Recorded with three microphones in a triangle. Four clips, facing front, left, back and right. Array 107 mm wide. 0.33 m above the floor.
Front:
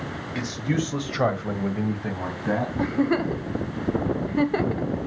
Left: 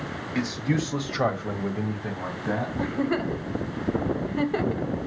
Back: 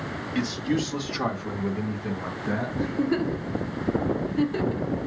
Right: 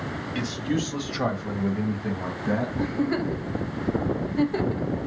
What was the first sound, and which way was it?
A man speaking, 65° left.